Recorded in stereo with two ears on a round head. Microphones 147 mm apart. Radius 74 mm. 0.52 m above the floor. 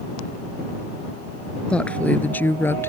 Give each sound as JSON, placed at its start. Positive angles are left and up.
{"t": 1.7, "sound": "a woman speaking", "side_deg": 5}